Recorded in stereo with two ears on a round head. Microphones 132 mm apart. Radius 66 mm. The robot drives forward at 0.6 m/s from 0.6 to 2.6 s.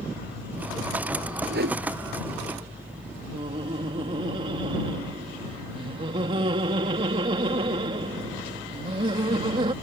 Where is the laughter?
35° right (ahead or behind).